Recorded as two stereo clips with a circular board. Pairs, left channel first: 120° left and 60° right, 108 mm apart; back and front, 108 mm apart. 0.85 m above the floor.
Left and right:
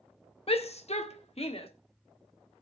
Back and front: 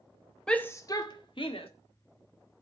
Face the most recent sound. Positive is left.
turn(degrees=150)